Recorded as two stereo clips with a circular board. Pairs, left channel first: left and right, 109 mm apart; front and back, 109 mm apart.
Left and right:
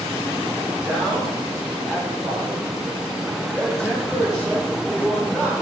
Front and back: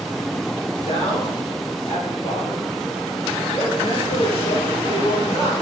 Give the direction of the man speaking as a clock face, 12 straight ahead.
12 o'clock.